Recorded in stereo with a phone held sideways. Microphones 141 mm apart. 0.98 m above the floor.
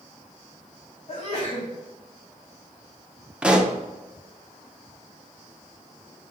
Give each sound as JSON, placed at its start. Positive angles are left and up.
{"t": 1.1, "sound": "a sneeze", "side_deg": 45, "distance_m": 2.5}
{"t": 3.4, "sound": "a pop", "side_deg": -5, "distance_m": 0.8}